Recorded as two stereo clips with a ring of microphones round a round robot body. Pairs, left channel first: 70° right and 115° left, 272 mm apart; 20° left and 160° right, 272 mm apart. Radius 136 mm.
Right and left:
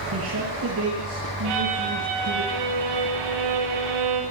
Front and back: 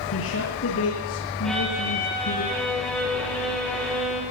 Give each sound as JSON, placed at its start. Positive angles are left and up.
{"t": 0.1, "sound": "a man speaking", "azimuth_deg": 70, "distance_m": 7.5}
{"t": 1.4, "sound": "a violin", "azimuth_deg": 110, "distance_m": 9.0}